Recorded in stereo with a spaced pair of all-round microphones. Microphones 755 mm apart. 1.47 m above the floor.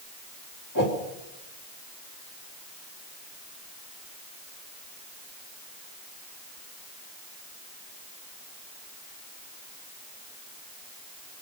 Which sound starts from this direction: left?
A whoosh, at 0.8 s.